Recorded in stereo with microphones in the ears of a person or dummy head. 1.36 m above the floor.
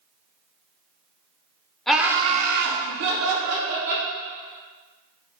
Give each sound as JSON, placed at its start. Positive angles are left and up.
{"t": 1.9, "sound": "laughter", "side_deg": 5, "distance_m": 0.5}